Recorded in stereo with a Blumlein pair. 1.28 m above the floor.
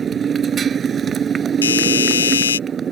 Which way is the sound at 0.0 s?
20° right.